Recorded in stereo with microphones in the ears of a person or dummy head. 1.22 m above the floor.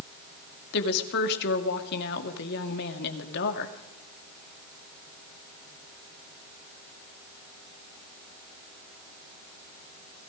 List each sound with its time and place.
0.7 s a woman speaking: 60° left (ahead or behind), 2.5 m